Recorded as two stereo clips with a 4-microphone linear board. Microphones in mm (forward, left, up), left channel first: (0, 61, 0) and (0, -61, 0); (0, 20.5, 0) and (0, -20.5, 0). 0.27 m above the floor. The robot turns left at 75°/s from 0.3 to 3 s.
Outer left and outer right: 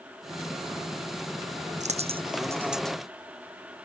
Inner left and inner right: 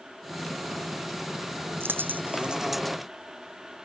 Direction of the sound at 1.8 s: 75° right (ahead or behind).